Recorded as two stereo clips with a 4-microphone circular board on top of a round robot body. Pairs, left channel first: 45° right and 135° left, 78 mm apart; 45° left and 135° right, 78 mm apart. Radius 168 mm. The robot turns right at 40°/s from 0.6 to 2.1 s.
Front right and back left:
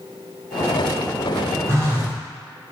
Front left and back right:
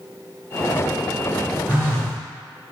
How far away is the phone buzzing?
About 1.4 m.